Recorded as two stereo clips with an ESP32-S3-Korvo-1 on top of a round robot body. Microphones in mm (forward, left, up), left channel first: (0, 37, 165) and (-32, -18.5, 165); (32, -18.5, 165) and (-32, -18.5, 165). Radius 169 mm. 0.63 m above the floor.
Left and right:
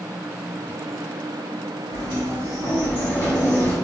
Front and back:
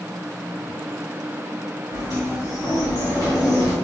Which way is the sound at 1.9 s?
35° left.